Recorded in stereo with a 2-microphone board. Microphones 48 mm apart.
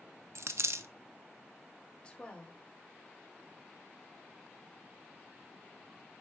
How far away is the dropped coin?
About 0.5 m.